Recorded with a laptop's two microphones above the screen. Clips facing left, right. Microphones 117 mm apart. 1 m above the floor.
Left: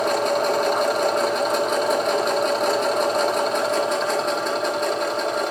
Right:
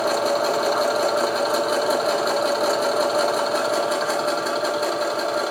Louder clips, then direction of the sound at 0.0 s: Even; 5° right (ahead or behind).